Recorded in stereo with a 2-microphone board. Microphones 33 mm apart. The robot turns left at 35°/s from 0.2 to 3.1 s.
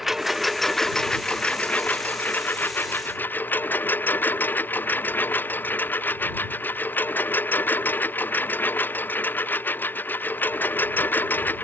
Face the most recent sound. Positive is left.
turn(degrees=90)